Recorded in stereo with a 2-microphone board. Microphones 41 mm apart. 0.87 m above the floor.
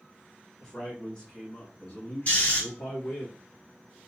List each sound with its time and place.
0.6 s a man speaking: 15° left (ahead or behind), 1.1 m; by 3.3 s 70° left (ahead or behind), 1.6 m
2.3 s snoring: 35° left (ahead or behind), 1.3 m